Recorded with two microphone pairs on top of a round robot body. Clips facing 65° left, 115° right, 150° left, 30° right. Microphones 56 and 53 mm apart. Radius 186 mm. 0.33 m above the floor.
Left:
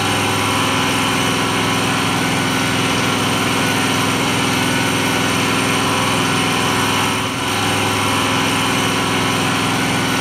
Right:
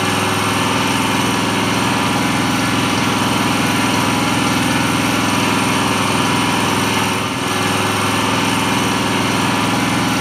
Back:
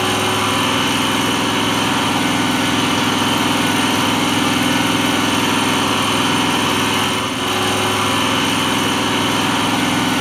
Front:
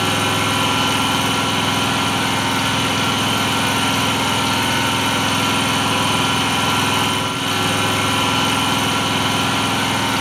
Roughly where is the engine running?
Behind right.